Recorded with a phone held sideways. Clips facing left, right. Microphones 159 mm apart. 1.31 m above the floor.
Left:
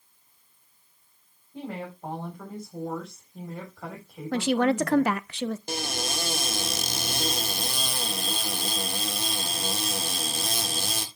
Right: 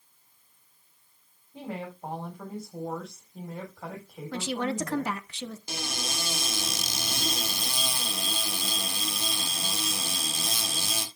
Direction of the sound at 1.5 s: 5° right (ahead or behind).